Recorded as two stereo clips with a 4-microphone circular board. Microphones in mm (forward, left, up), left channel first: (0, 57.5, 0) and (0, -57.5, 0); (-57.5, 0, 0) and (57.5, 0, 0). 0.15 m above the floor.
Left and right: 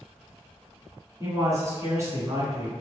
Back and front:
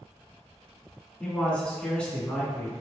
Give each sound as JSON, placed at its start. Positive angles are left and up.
{"t": 1.2, "sound": "a man speaking", "azimuth_deg": -110, "distance_m": 1.2}